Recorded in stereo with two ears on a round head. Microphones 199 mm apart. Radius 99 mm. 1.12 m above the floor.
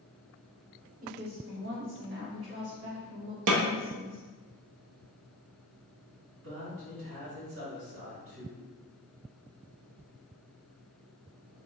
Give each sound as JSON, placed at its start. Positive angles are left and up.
{"t": 1.0, "sound": "a woman speaking", "side_deg": -35, "distance_m": 0.9}
{"t": 3.5, "sound": "a snare drum", "side_deg": -65, "distance_m": 0.6}
{"t": 6.4, "sound": "a man speaking", "side_deg": -60, "distance_m": 2.0}